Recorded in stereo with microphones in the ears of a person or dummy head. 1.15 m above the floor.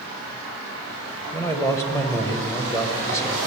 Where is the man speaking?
10° left (ahead or behind), 0.9 m.